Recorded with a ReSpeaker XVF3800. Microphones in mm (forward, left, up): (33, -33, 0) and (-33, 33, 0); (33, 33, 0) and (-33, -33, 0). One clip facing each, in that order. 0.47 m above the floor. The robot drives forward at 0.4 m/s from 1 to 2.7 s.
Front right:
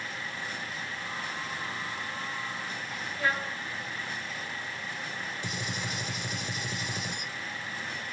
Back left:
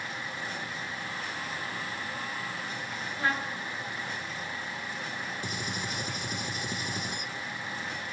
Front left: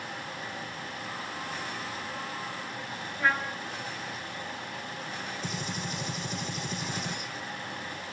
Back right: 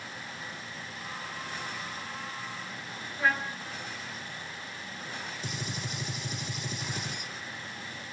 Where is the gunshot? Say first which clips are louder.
Even, front left 3 dB; 140° left, 1.3 m.